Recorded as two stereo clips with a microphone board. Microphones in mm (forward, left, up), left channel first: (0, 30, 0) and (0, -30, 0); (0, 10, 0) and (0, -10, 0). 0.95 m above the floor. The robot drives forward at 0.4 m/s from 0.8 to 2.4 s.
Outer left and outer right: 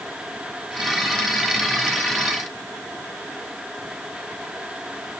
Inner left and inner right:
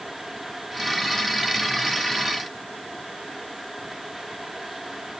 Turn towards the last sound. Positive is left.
No sound to turn to.